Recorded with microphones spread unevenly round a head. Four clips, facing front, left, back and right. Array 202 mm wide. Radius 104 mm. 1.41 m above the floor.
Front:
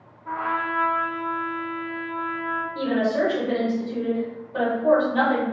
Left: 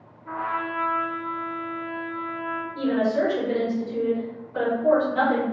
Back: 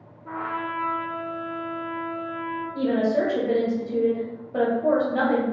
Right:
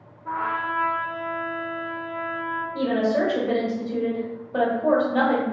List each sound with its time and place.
0.2 s a trumpet: 145° right, 1.0 m
2.7 s a woman speaking: 135° right, 1.0 m